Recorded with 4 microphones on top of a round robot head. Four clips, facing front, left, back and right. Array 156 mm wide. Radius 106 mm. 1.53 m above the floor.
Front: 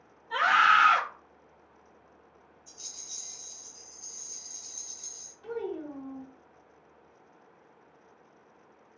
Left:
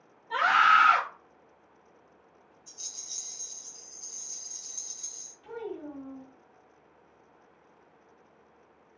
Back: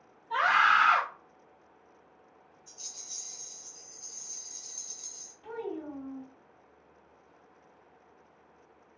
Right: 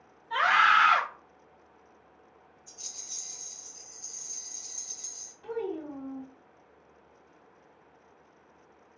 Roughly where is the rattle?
Left.